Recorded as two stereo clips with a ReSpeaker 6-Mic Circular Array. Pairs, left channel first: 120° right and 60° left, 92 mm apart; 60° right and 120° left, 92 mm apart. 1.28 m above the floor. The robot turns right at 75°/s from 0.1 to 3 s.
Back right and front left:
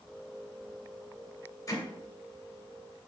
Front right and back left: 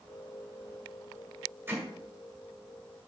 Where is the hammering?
170° right, 2 m; by 1.8 s 160° right, 2 m.